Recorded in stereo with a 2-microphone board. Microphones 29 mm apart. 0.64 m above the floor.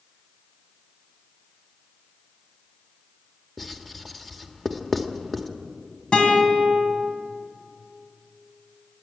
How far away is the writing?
About 1.3 m.